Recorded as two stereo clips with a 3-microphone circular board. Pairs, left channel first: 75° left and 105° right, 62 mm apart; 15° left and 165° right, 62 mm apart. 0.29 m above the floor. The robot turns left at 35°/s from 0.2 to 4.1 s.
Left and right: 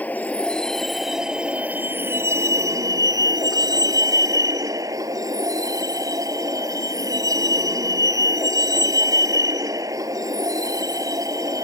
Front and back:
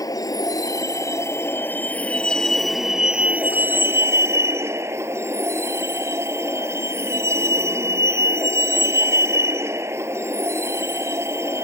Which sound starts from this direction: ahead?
A vehicle, at 0.0 s.